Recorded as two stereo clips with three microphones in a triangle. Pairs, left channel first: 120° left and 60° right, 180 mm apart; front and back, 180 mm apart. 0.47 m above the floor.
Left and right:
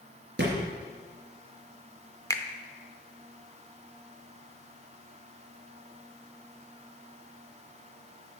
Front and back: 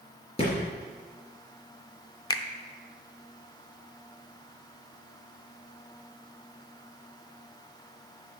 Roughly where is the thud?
Ahead right.